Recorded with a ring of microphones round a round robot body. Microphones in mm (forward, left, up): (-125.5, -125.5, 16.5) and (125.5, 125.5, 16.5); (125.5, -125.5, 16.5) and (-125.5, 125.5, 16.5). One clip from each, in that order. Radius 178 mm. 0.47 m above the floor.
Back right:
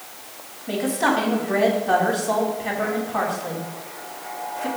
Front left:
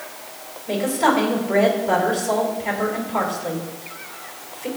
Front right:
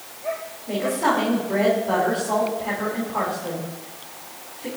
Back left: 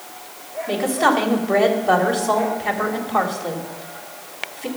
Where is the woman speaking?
150° left, 3.5 m.